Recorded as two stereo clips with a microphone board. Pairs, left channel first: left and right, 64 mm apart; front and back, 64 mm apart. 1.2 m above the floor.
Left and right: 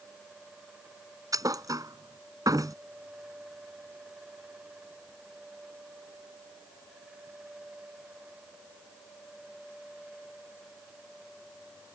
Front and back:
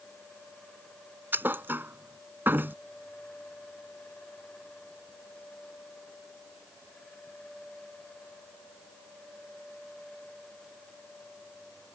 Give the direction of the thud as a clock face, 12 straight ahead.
4 o'clock.